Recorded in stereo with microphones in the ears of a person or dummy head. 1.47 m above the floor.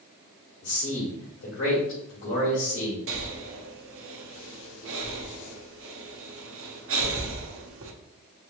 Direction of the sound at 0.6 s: 75° left (ahead or behind).